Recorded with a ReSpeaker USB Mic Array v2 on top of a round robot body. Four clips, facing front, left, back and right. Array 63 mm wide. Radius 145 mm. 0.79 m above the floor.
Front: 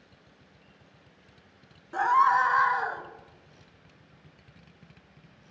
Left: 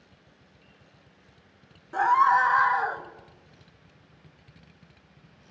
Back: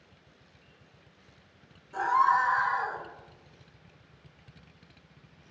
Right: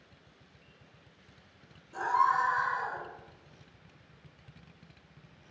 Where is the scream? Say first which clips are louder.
Left 7 dB, front 2 dB; 55° left, 2 m; by 3.0 s 70° left, 1.5 m.